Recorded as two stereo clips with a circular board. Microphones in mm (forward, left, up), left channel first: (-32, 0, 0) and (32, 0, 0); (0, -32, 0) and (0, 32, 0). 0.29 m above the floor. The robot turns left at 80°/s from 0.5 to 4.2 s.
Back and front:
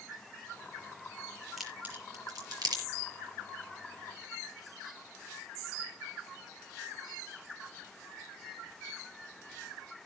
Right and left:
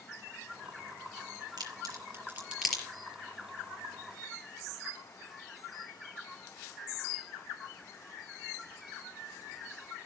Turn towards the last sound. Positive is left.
turn(degrees=-120)